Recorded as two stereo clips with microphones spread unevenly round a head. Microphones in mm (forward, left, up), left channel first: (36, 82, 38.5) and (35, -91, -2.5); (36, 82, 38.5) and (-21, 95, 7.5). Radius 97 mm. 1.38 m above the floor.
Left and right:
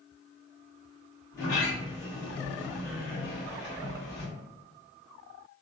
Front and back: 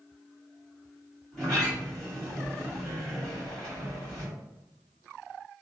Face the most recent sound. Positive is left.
turn(degrees=30)